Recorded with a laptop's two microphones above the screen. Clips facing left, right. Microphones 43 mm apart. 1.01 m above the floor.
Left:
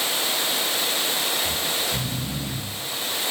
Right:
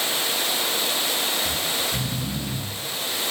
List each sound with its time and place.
1.4 s snoring: 10° left (ahead or behind), 3 m